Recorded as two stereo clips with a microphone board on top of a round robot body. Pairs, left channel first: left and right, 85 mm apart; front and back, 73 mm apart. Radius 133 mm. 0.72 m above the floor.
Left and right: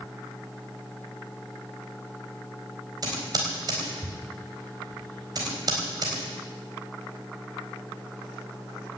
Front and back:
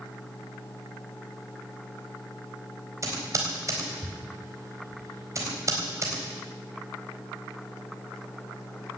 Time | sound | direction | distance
3.0 | typing on a keyboard | 130° right | 4 m